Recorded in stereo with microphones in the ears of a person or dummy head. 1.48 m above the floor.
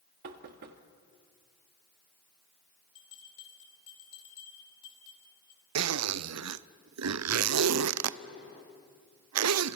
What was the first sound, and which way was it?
Knocking, 55° right (ahead or behind).